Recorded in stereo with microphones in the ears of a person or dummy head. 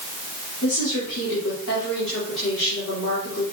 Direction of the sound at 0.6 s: 75° left (ahead or behind).